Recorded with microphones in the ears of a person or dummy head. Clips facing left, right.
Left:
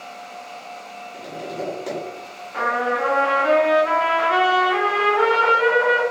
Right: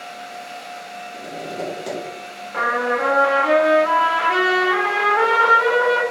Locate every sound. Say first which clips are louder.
1.1 s tapping: even; 15° right (ahead or behind), 1.1 m
2.5 s a trumpet: right 1 dB; 55° right (ahead or behind), 1.2 m